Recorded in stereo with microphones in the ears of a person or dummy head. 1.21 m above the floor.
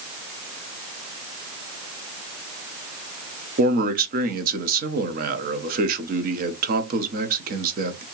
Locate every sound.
3.6 s a man speaking: 40° right (ahead or behind), 0.8 m